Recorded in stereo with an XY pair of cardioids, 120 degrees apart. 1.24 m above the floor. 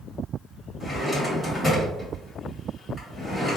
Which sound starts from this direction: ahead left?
A drawer, at 0.8 s.